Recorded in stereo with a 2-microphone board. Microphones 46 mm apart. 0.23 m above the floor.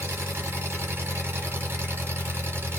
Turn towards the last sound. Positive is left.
turn(degrees=-50)  # may be behind; listen again after turning